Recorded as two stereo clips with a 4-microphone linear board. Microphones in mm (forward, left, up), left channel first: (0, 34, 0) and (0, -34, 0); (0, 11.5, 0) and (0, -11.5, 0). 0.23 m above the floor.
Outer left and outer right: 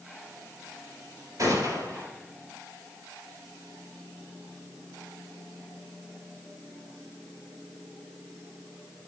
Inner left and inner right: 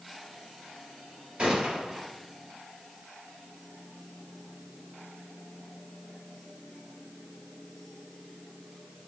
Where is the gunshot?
60° right (ahead or behind), 3 m.